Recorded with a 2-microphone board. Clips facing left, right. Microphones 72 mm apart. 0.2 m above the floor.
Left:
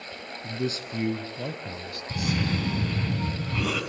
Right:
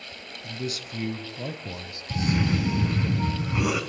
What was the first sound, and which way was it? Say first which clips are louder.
A man speaking: left 3 dB; 35° left (ahead or behind).